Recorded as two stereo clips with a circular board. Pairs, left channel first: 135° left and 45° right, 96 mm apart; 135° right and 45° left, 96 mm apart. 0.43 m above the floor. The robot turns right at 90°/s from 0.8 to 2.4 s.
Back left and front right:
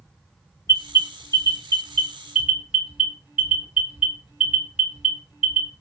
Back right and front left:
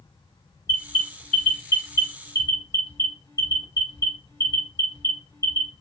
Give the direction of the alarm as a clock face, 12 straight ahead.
9 o'clock.